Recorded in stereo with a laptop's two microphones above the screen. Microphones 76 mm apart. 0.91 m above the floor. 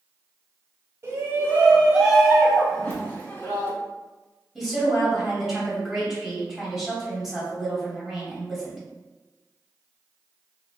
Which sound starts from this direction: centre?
A woman speaking, at 4.5 s.